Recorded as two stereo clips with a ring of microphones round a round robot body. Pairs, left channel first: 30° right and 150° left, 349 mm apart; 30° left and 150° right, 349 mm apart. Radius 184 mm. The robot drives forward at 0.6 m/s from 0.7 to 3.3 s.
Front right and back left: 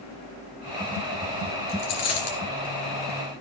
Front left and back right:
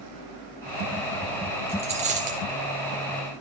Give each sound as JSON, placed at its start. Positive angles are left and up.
{"t": 1.7, "sound": "a dropped coin", "azimuth_deg": -75, "distance_m": 3.5}